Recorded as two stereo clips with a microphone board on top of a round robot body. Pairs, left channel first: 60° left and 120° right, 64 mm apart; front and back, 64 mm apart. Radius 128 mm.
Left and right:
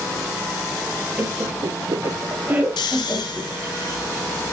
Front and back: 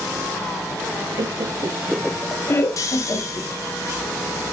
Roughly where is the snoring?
Ahead left.